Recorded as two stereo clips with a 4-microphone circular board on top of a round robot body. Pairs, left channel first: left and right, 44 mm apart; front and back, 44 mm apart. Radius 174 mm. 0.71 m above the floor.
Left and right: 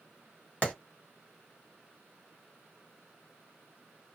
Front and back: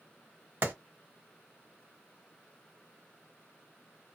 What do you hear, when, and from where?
0.6 s a clap: 150° left, 1.8 m